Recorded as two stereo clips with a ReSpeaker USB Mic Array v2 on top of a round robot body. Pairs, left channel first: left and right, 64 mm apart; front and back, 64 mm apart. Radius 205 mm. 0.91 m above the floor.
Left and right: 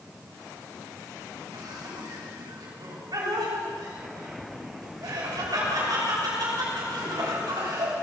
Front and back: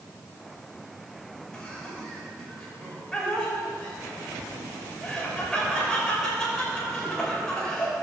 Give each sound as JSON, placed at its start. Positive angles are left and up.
{"t": 1.5, "sound": "laughter", "azimuth_deg": -80, "distance_m": 6.0}